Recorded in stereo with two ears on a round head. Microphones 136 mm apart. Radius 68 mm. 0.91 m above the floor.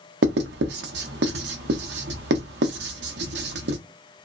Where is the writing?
75° right (ahead or behind), 0.6 m.